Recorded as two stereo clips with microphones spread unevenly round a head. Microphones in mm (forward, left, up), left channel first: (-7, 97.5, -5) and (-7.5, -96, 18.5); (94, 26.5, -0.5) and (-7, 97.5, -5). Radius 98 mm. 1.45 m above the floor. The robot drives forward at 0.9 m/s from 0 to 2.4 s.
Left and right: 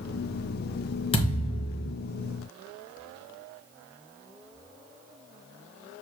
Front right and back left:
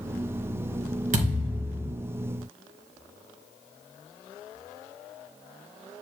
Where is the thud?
155° left, 3.5 m; by 1.9 s 160° left, 4 m.